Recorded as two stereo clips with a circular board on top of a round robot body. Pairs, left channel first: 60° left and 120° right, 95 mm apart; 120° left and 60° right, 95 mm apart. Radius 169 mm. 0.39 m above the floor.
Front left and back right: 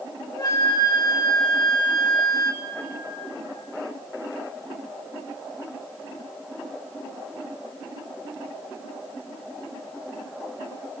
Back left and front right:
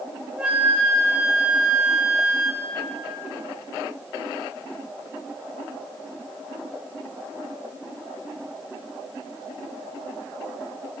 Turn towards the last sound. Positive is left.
turn(degrees=15)